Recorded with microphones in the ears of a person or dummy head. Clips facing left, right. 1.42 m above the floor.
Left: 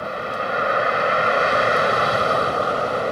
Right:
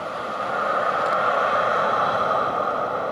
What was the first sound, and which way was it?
A vehicle, 30° left (ahead or behind).